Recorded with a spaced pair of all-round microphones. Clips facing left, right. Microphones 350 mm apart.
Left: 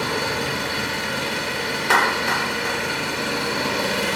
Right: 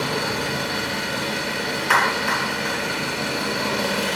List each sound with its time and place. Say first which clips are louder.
0.0 s an engine running: even; centre (ahead or behind), 4 m
1.9 s a clap: left 1 dB; 50° left (ahead or behind), 0.6 m